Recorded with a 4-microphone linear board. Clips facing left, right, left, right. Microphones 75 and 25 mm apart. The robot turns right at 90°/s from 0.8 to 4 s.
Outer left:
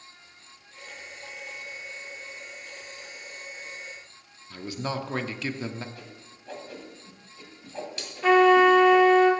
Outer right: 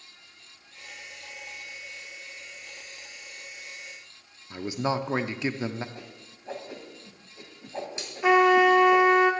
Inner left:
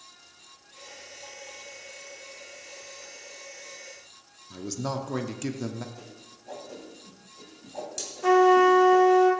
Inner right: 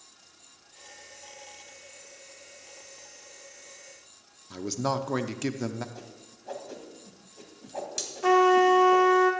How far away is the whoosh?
About 2.5 m.